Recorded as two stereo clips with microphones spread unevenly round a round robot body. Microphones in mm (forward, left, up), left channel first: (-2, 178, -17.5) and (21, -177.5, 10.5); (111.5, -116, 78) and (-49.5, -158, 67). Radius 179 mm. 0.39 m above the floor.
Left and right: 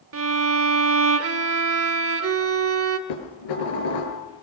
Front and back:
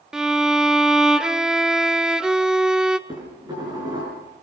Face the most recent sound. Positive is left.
turn(degrees=120)